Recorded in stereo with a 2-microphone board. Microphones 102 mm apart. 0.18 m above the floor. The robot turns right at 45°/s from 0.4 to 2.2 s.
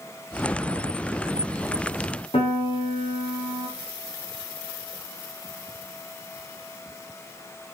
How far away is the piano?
About 5.5 m.